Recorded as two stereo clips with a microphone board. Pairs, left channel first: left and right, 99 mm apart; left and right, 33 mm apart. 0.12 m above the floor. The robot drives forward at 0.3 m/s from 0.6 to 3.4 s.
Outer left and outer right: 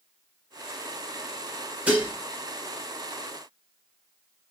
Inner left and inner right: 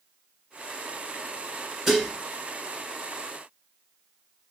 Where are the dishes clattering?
15° right (ahead or behind), 0.9 m.